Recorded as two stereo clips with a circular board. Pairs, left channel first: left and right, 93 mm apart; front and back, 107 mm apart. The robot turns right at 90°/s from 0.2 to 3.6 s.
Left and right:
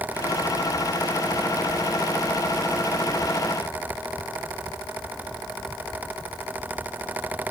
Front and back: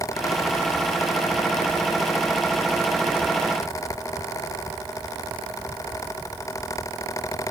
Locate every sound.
Only background noise.